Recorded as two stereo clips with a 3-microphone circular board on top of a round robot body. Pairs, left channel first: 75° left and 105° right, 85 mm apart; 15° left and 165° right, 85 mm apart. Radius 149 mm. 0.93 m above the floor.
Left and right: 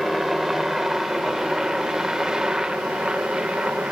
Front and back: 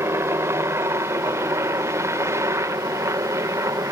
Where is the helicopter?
170° left; by 3.9 s straight behind.